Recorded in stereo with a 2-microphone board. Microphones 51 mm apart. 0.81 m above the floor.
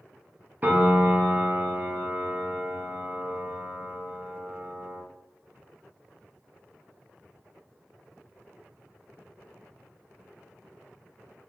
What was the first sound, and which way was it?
A piano, 35° right (ahead or behind).